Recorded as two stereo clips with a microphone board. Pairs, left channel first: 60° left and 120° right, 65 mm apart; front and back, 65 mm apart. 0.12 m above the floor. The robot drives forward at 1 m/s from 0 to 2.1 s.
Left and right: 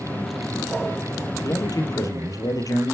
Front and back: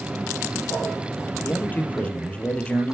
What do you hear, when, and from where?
1.4 s a man speaking: 55° left, 2.5 m; by 2.9 s 70° left, 2.5 m